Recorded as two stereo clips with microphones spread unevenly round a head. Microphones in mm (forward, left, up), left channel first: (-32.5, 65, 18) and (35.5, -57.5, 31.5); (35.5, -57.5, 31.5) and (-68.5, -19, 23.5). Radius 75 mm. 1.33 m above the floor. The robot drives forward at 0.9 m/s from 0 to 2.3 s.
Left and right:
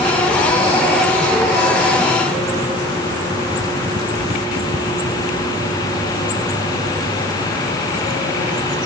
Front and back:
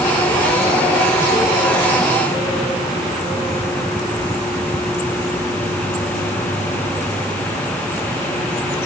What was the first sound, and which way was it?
Only background noise.